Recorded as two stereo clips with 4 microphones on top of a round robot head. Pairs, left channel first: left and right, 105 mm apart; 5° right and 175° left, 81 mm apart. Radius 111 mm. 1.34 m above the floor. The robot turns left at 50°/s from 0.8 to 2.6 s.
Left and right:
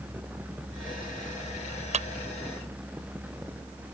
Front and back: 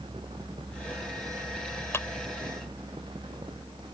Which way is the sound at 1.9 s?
70° right.